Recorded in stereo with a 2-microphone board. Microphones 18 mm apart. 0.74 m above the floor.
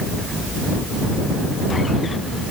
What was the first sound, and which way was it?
Only background noise.